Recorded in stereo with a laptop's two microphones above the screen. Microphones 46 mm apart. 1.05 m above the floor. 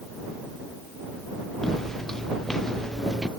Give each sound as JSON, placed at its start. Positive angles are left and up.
{"t": 1.6, "sound": "footsteps", "side_deg": 5}